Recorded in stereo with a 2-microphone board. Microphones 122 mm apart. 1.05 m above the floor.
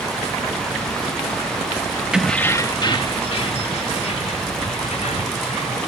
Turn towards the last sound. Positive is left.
turn(degrees=70)  # may be behind; listen again after turning